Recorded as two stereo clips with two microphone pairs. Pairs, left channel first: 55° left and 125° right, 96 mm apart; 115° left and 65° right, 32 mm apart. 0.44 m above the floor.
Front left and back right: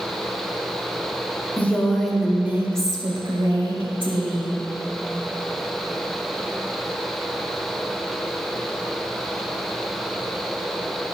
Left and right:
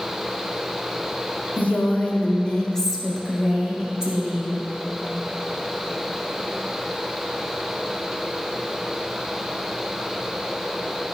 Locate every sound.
1.6 s a woman speaking: 125° left, 1.6 m; by 4.5 s 125° right, 2.5 m